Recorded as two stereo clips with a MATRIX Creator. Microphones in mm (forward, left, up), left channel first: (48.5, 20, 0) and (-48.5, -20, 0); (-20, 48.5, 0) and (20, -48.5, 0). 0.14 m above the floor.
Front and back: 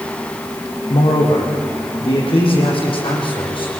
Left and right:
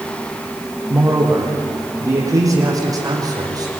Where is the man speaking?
5° right, 6.5 m; by 3.7 s 15° right, 7 m.